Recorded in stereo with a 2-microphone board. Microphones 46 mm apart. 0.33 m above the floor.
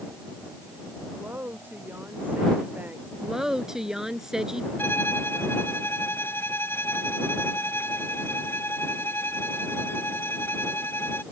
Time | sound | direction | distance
1.1 | a woman speaking | 40° right (ahead or behind) | ?
3.2 | a woman speaking | 10° right (ahead or behind) | ?
4.8 | a violin | 55° left (ahead or behind) | ?